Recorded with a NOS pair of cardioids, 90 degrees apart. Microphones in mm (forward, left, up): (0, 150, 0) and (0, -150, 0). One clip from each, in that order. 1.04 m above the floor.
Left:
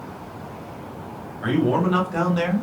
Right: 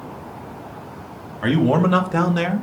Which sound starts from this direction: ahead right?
A man speaking, at 1.4 s.